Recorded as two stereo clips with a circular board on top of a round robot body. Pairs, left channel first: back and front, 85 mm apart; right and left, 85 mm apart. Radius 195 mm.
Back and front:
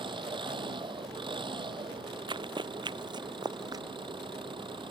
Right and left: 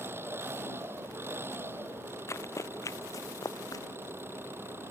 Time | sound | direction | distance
0.0 | an engine running | 25° left | ?
2.3 | running footsteps | 30° right | ?